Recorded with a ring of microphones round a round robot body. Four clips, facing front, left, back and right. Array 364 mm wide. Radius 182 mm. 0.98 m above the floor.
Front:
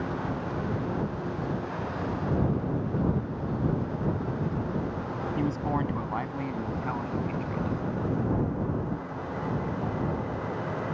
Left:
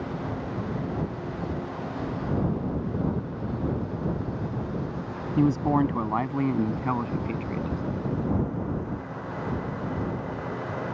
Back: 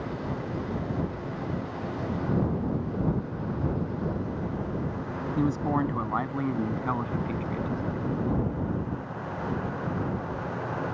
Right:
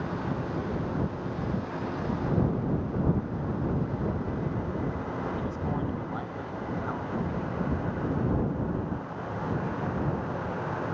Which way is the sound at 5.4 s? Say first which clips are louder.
Left 10 dB, back 3 dB; 105° left.